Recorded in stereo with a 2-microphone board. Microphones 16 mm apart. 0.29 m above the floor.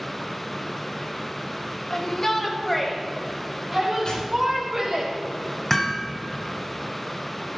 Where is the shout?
35° left (ahead or behind), 1.5 m; by 5.0 s 30° right (ahead or behind), 3.5 m.